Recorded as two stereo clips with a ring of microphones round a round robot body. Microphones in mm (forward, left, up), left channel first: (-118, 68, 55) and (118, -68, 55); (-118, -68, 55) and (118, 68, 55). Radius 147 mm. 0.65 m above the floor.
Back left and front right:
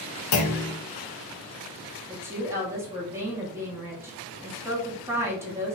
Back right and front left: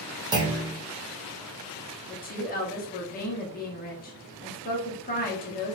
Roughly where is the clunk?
Left.